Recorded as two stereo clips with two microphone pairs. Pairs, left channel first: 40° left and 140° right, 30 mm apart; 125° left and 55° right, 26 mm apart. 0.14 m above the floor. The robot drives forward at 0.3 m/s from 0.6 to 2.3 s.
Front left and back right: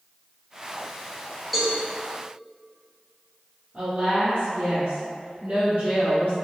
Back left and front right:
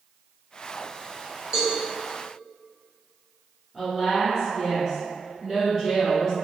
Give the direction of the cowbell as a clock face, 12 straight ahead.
1 o'clock.